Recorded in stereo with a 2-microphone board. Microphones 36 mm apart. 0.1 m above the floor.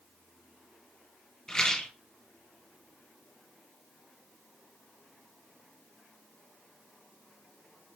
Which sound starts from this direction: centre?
A rattle, at 1.5 s.